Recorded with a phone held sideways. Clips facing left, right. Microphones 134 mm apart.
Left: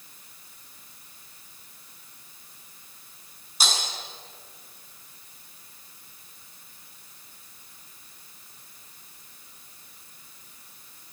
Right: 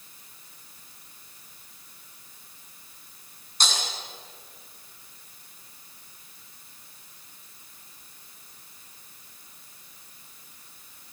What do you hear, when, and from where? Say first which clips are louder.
3.6 s breaking glass: left 1 dB; 5° left (ahead or behind), 6.5 m